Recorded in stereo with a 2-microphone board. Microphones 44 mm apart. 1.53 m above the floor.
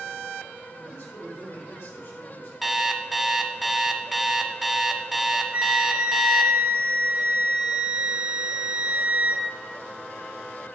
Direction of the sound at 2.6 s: Centre (ahead or behind).